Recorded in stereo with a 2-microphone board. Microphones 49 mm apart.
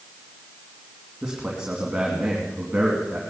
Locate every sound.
1.2 s a man speaking: 15° right (ahead or behind), 2.5 m